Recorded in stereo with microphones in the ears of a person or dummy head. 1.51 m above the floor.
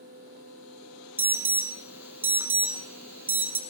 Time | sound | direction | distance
1.2 | an alarm | 15° right (ahead or behind) | 1.0 m